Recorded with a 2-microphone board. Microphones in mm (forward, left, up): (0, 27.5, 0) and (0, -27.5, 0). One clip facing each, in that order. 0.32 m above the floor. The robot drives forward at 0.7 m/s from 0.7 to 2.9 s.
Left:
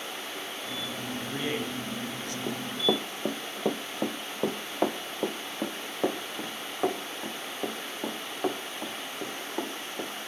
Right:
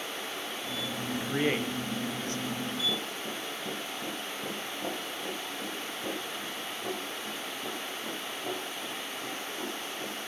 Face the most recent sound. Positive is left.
turn(degrees=70)  # may be behind; listen again after turning